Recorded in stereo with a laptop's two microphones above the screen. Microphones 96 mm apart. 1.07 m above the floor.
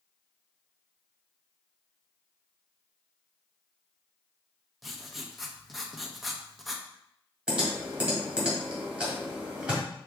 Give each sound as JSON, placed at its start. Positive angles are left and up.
{"t": 4.8, "sound": "writing", "side_deg": 0, "distance_m": 0.8}
{"t": 7.5, "sound": "typing on a keyboard", "side_deg": -10, "distance_m": 1.5}